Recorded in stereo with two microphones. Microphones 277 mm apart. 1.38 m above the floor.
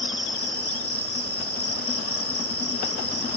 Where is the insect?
55° left (ahead or behind).